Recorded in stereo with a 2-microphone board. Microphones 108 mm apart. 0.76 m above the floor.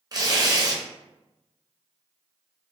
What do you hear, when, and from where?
0.1 s tearing paper: 40° right (ahead or behind), 0.6 m